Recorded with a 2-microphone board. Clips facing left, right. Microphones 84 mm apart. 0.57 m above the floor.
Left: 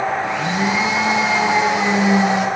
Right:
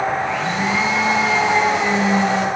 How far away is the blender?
About 5 m.